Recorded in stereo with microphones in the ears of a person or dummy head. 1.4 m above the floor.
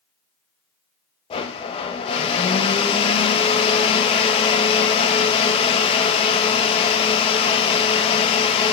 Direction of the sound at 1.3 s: 30° left (ahead or behind).